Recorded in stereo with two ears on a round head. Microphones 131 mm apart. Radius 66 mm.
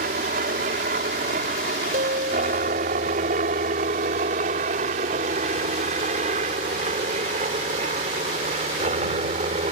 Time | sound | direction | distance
0.0 | a helicopter | 60° right (ahead or behind) | ?
1.9 | a guitar | 65° right (ahead or behind) | ?